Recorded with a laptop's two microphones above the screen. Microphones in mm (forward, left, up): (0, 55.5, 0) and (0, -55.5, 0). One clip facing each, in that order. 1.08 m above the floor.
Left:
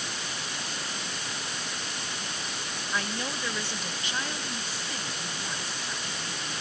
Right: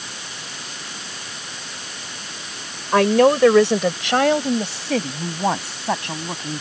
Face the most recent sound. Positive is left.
turn(degrees=-75)  # may be behind; listen again after turning